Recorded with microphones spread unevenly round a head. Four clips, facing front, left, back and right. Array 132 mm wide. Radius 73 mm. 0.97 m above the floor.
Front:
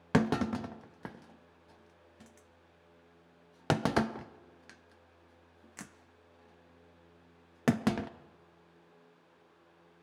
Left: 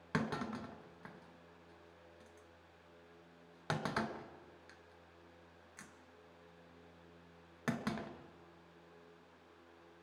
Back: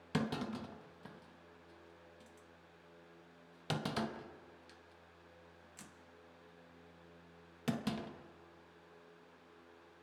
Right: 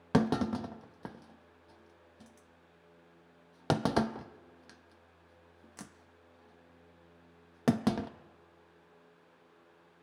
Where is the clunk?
55° right, 0.6 m.